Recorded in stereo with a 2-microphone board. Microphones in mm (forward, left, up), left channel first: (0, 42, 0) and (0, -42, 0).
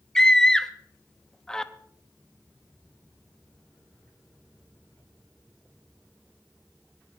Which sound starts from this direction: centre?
A scream, at 0.1 s.